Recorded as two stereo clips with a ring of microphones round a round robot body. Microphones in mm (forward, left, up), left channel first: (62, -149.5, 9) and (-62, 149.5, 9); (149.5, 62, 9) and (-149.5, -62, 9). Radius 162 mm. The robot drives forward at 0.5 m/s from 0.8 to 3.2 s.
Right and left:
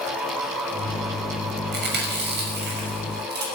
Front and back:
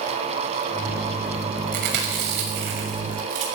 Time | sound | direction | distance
1.7 | chewing | 170° left | 6.5 m